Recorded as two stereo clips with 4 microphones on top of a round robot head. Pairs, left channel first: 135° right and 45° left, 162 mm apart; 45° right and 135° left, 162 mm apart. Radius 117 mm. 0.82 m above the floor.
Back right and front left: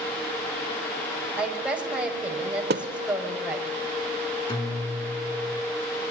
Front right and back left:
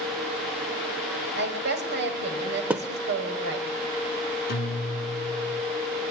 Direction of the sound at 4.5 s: 75° right.